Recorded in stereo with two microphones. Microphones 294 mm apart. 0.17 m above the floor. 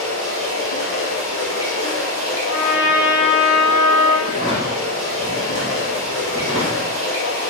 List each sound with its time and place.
0.0 s running water: 55° right (ahead or behind), 1.5 m
2.5 s a trumpet: 5° right (ahead or behind), 1.0 m
4.2 s a drawer: 25° right (ahead or behind), 1.1 m